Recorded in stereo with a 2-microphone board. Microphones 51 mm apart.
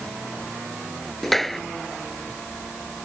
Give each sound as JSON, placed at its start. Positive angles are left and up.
{"t": 1.2, "sound": "a clap", "side_deg": 5}